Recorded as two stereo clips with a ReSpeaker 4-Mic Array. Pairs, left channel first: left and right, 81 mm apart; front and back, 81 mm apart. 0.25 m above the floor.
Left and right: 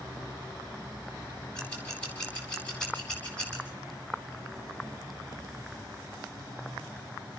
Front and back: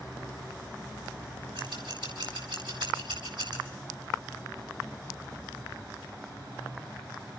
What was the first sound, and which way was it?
Scissors, 170° left.